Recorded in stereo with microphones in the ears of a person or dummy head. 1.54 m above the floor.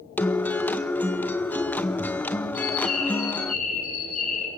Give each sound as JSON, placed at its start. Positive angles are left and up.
{"t": 0.2, "sound": "a guitar", "side_deg": 15, "distance_m": 0.7}
{"t": 2.5, "sound": "a bird", "side_deg": 50, "distance_m": 9.0}